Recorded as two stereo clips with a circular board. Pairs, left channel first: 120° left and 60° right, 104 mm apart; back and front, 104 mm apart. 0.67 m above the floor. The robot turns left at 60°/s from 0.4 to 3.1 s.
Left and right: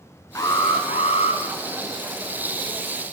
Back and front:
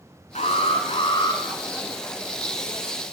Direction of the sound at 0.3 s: Straight behind.